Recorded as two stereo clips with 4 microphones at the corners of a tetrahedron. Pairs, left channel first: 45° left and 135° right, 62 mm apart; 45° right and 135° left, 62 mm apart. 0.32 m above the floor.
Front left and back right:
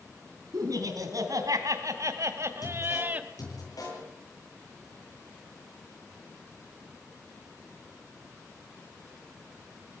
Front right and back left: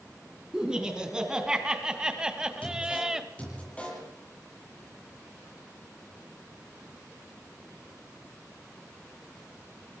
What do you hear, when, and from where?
0.5 s laughter: 145° right, 4.5 m; by 3.3 s 160° right, 1.5 m
2.6 s a man speaking: 25° left, 8.5 m